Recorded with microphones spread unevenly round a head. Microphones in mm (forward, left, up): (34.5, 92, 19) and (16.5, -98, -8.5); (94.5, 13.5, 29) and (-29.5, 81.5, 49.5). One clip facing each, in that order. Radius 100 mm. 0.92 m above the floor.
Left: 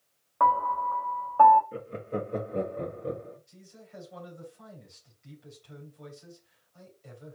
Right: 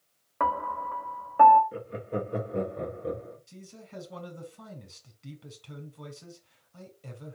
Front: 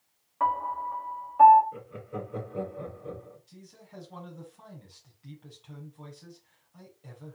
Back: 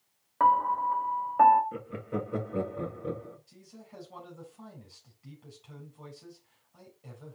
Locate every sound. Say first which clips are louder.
0.4 s a piano: left 4 dB, back 4 dB; 160° right, 1.1 m
1.7 s laughter: right 1 dB, back 4 dB; straight behind, 2.5 m
3.5 s a man speaking: right 4 dB, even; 125° right, 4 m